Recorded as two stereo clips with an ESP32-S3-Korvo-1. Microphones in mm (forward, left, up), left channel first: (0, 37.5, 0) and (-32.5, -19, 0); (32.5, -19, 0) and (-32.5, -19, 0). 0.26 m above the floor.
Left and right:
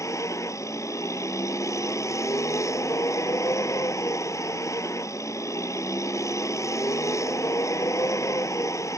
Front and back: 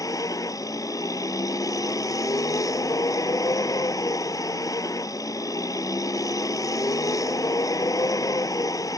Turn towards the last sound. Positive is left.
turn(degrees=25)